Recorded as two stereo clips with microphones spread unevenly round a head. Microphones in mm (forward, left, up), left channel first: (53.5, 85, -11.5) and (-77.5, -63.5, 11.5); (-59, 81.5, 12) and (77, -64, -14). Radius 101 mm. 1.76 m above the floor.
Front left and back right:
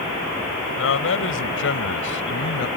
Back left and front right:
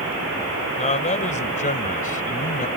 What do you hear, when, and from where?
0.8 s a man speaking: 75° left; by 2.7 s 85° left